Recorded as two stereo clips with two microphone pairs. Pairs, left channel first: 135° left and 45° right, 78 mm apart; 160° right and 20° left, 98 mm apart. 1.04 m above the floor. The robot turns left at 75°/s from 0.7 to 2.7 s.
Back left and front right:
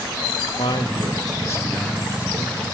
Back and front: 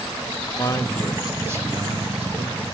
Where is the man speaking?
140° left, 1.8 m; by 2.6 s 5° right, 1.8 m.